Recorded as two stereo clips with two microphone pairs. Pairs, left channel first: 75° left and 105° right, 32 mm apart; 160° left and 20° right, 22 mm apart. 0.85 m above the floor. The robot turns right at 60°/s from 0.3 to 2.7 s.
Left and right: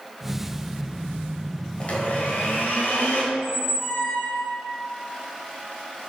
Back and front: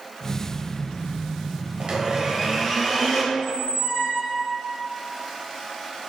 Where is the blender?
20° left, 1.4 m; by 3.2 s 75° left, 1.4 m.